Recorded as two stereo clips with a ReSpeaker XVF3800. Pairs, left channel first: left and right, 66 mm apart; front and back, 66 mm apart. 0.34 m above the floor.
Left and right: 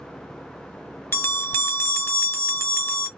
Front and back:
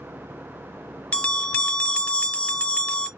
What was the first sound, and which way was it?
A bell, 55° left.